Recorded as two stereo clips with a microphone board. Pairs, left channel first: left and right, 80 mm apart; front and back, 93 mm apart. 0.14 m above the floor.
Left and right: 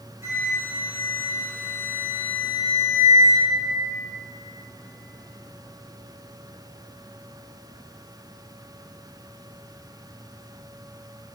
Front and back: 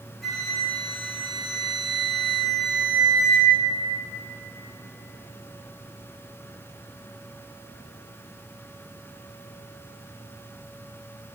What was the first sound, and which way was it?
A flute, 85° right.